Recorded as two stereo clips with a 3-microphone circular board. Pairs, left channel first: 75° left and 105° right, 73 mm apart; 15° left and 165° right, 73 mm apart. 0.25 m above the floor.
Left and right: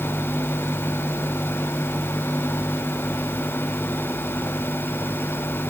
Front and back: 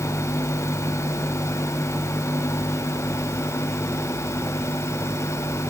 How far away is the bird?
No bird in this recording.